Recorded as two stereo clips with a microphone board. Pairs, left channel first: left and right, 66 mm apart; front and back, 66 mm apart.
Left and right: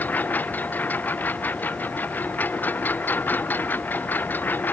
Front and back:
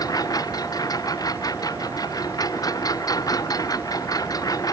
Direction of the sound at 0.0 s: 25° left.